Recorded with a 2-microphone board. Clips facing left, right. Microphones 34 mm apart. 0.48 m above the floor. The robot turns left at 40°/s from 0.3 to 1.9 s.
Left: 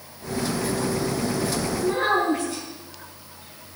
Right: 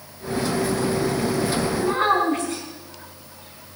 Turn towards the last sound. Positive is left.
turn(degrees=-55)  # may be behind; listen again after turning